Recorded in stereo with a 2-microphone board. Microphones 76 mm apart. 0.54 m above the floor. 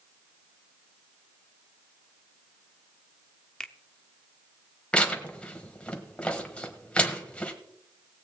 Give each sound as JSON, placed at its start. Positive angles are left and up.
{"t": 3.6, "sound": "a finger snap", "side_deg": 10, "distance_m": 0.7}
{"t": 4.9, "sound": "tearing paper", "side_deg": 15, "distance_m": 1.3}